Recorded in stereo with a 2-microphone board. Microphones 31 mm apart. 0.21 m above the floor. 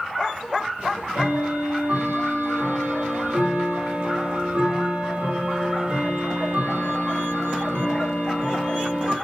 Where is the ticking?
80° right, 5.5 m.